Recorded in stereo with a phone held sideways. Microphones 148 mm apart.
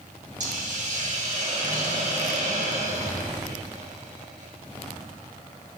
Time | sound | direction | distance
0.4 | a hiss | 55° right (ahead or behind) | 1.7 m